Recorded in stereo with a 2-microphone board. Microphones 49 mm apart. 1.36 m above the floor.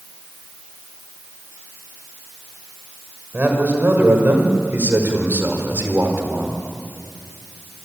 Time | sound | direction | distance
3.3 | a man speaking | 40° right (ahead or behind) | 6 m